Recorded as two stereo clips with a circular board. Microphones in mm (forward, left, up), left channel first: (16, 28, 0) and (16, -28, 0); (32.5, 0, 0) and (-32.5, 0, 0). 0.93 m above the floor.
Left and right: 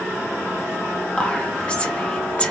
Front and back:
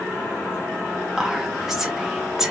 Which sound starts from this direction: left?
Whispering, at 1.2 s.